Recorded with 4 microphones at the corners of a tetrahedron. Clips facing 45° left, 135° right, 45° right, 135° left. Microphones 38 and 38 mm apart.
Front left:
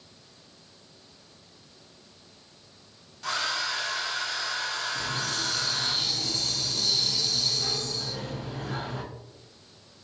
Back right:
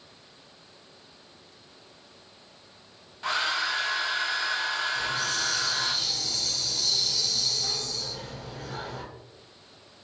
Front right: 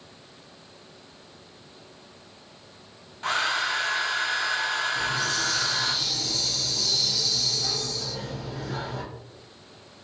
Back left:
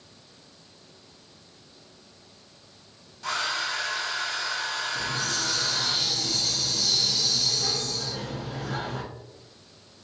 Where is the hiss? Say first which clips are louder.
Back right 2 dB, front right 3 dB; 90° left, 0.9 m.